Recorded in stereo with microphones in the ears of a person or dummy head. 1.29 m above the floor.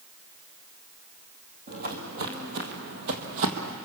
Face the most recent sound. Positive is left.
turn(degrees=-50)  # may be behind; listen again after turning